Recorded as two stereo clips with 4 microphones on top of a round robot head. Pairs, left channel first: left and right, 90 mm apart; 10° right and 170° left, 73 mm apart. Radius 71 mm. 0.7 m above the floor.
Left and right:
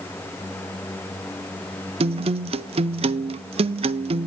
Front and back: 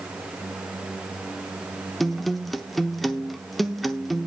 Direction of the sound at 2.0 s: 105° right.